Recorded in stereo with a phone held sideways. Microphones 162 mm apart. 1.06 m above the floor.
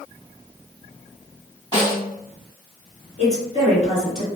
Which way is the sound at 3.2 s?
40° left (ahead or behind).